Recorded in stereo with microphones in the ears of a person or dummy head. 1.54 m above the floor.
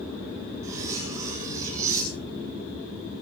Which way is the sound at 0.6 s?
20° right (ahead or behind).